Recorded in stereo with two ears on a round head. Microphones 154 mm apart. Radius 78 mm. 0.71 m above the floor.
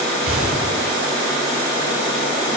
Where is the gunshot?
60° right (ahead or behind), 7 m.